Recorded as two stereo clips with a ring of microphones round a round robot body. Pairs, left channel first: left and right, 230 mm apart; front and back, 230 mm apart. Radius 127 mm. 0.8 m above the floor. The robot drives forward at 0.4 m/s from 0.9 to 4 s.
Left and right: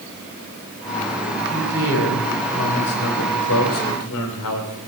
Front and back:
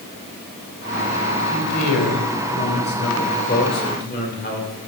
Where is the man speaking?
45° left, 3.5 m; by 4.8 s 55° left, 3 m.